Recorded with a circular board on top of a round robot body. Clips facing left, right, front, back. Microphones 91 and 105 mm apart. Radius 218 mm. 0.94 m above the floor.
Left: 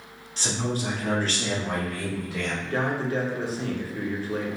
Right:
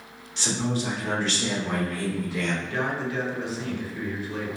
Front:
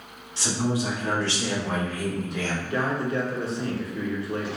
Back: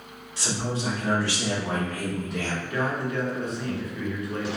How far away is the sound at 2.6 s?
About 0.9 m.